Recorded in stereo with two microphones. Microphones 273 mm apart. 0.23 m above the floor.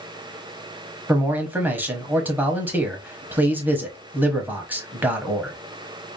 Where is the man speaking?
5° right (ahead or behind), 1.0 m.